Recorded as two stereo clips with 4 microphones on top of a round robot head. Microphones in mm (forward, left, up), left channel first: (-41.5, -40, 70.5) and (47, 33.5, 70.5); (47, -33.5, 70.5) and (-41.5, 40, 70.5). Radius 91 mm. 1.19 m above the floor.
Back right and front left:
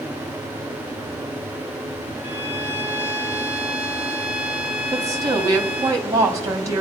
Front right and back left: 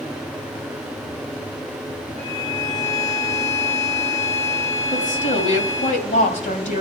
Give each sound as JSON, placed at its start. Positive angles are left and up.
{"t": 2.2, "sound": "a violin", "azimuth_deg": -65, "distance_m": 4.5}
{"t": 4.9, "sound": "a woman speaking", "azimuth_deg": -20, "distance_m": 2.0}